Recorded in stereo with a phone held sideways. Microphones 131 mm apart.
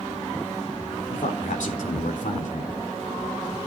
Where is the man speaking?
80° left, 3.5 m.